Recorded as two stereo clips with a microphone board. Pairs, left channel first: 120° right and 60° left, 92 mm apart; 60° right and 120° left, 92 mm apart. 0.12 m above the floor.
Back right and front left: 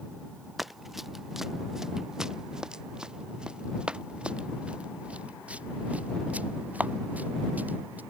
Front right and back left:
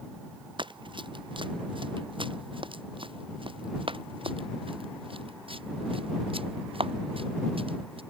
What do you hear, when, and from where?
0.6 s running footsteps: 150° left; by 8.0 s 130° left